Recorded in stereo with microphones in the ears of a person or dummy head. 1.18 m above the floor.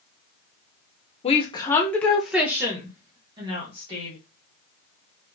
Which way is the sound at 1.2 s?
35° left (ahead or behind).